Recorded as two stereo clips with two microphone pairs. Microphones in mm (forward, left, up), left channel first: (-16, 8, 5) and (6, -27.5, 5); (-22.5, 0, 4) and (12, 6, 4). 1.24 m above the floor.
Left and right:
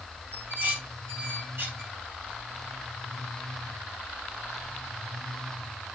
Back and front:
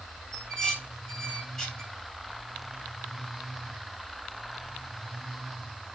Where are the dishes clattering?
90° right, 8 m.